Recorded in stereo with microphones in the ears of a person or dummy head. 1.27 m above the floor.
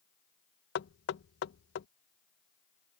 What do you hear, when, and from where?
0.8 s knocking: 65° left (ahead or behind)